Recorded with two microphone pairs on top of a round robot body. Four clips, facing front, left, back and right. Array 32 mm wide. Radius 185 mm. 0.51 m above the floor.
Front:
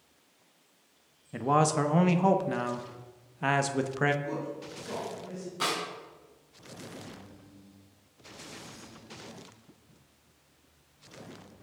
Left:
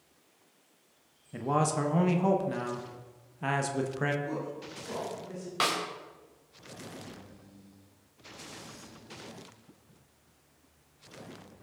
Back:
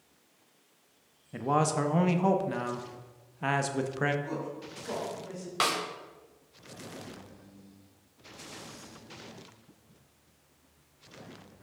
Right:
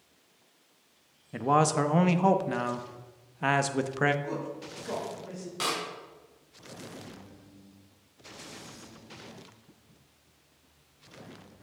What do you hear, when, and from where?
1.3 s a man speaking: 75° right, 1.1 m
4.2 s a woman speaking: 115° right, 4 m
5.6 s a snare drum: 145° left, 3 m